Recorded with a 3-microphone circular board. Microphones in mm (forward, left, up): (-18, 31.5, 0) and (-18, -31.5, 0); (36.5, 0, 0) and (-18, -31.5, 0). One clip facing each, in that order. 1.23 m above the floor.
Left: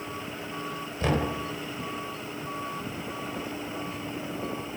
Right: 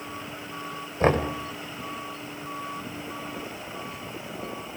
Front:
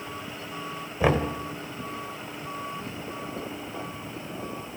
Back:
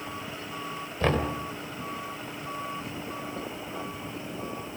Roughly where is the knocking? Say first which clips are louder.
Right 5 dB, front 3 dB; ahead right.